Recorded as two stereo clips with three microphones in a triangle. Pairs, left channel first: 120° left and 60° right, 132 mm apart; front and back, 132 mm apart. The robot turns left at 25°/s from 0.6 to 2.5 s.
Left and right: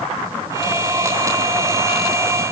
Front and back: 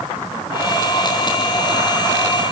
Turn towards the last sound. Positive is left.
No sound to turn to.